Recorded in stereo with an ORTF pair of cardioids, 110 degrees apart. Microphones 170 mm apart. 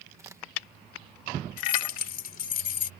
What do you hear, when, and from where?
0.2 s a crack: 15° right
1.6 s keys jangling: 55° left